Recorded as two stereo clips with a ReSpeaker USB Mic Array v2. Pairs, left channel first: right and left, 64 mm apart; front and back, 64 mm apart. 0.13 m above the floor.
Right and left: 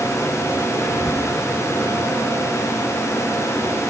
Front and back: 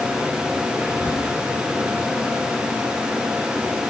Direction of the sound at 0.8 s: 145° right.